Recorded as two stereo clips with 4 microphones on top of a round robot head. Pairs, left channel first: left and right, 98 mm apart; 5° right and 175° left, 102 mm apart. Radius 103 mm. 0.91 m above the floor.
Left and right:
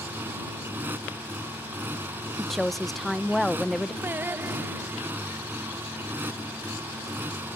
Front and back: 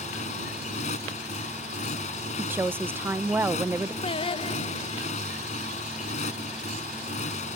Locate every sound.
0.0 s a motorcycle: 15° right
2.4 s a woman speaking: 175° left
4.0 s singing: 20° right